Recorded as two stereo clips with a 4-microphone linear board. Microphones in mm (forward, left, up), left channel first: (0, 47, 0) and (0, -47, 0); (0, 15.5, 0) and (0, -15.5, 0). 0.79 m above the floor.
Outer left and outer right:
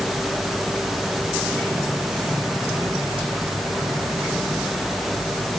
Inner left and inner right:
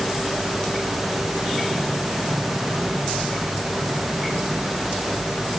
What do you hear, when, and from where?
Only background noise.